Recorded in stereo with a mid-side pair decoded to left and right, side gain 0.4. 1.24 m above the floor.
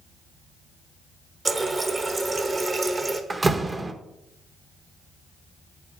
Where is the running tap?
35° right, 0.9 m.